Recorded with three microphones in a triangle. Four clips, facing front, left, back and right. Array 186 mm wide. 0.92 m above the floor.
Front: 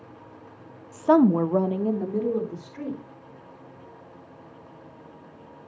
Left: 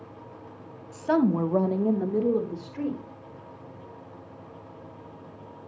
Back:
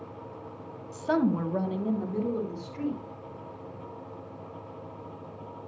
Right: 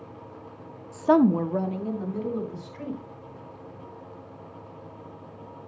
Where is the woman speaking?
50° right, 1.1 m; by 3.0 s 75° left, 2.5 m.